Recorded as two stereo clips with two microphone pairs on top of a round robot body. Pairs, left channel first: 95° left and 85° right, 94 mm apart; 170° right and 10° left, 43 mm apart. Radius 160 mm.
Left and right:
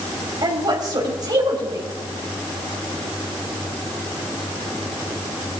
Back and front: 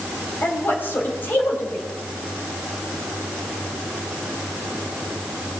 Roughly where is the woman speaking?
Behind right.